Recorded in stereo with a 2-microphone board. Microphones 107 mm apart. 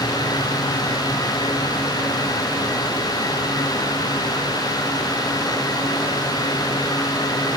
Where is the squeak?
I don't hear a squeak.